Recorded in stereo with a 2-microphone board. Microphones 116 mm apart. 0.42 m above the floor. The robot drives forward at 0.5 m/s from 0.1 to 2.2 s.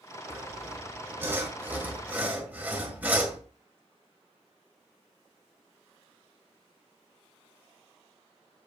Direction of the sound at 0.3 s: 25° right (ahead or behind).